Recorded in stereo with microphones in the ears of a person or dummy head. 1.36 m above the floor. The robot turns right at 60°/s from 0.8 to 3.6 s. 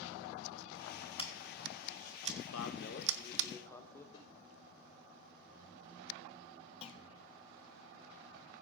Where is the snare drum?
35° left (ahead or behind), 5.5 m.